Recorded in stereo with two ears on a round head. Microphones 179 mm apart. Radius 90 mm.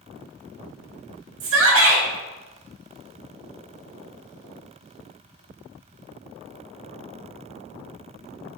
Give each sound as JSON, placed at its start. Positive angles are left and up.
{"t": 1.4, "sound": "a shout", "side_deg": -70, "distance_m": 1.7}